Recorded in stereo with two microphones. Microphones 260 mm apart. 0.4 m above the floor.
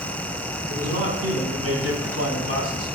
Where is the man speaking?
65° right (ahead or behind), 3.5 m; by 2.9 s 60° right (ahead or behind), 2.5 m.